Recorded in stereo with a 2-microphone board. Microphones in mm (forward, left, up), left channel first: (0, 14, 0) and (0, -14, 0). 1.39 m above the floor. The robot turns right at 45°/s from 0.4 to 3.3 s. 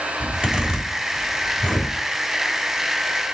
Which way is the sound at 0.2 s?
35° right (ahead or behind).